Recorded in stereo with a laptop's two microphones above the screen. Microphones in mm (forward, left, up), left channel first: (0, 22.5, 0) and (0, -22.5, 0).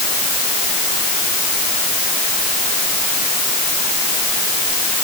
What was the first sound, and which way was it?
Only background noise.